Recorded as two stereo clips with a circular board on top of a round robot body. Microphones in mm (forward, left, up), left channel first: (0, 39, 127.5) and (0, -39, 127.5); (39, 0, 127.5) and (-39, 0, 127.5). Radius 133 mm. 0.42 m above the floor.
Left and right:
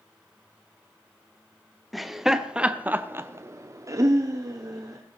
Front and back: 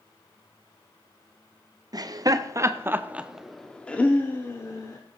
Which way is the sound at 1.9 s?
Straight behind.